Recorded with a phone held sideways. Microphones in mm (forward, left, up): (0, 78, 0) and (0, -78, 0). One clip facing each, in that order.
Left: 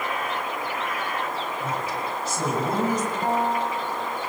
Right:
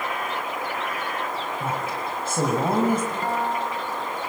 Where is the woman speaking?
55° right (ahead or behind), 6 m.